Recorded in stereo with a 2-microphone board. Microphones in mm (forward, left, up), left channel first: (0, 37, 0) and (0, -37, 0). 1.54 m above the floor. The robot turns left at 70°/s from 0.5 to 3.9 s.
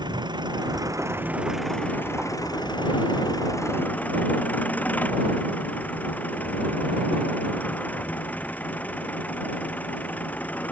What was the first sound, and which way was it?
An engine running, 100° right.